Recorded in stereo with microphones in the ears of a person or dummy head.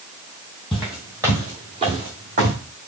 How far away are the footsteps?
About 1.7 m.